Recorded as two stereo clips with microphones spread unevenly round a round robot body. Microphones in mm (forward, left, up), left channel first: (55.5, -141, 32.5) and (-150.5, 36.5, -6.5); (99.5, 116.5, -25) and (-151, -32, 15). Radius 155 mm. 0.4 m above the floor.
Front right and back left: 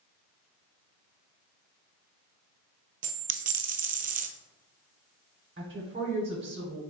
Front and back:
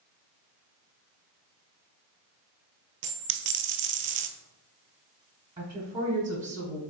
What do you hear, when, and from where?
3.0 s a dropped coin: 160° right, 0.6 m
5.6 s a woman speaking: 130° left, 1.2 m